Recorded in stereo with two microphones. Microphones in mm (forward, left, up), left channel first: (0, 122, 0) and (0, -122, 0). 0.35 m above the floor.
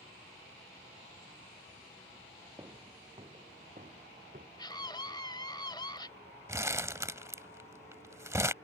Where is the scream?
15° left (ahead or behind).